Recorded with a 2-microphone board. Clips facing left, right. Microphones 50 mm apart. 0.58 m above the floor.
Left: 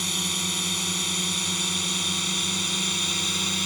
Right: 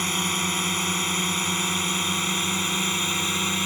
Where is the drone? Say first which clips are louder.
Right 4 dB; 35° right (ahead or behind); by 3.7 s 25° right (ahead or behind).